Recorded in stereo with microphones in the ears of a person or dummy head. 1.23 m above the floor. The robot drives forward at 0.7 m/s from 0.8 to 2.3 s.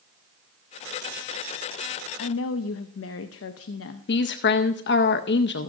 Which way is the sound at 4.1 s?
50° left (ahead or behind).